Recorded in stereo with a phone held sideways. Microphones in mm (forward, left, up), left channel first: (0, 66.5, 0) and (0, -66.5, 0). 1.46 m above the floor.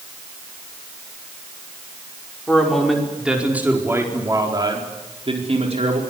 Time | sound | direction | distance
2.5 | a man speaking | 5° left (ahead or behind) | 5.5 m